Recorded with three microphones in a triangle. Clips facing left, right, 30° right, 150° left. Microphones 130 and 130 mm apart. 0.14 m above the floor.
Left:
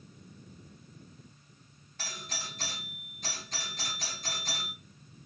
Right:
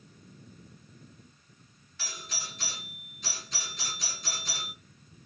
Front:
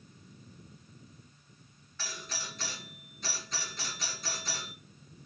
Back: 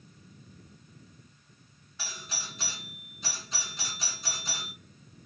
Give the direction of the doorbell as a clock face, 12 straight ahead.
9 o'clock.